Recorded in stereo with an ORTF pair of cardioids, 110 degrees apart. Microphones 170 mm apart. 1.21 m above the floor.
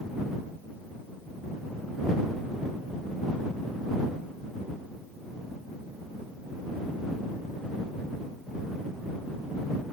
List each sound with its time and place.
Only background noise.